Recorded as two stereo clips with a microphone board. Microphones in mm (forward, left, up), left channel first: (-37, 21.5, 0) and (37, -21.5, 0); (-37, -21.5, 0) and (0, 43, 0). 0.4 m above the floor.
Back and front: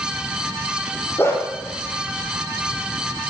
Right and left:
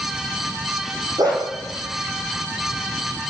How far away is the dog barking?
About 5.5 m.